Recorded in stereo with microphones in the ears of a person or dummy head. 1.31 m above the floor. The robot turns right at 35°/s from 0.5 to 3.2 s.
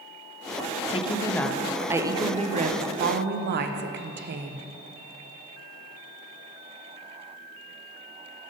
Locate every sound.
0.9 s a woman speaking: 155° left, 0.6 m; by 4.7 s 125° right, 0.6 m